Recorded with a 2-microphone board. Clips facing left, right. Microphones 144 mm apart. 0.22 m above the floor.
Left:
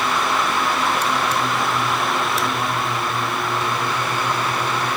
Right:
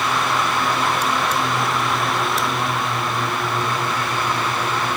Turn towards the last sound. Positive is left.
No sound to turn to.